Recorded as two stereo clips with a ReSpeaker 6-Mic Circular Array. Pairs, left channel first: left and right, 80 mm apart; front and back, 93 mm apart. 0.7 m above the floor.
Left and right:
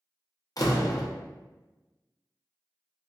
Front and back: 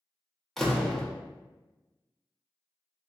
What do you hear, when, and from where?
0.6 s a door slam: 85° left, 0.6 m